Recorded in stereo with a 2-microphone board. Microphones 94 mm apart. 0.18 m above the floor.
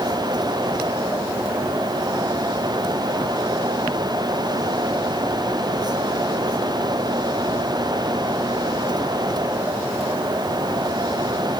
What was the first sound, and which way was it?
Only background noise.